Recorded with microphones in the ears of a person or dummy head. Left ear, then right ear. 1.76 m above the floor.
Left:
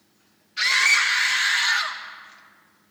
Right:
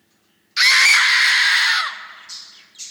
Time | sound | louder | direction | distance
0.6 | a scream | right 6 dB | 60° right (ahead or behind) | 1.2 m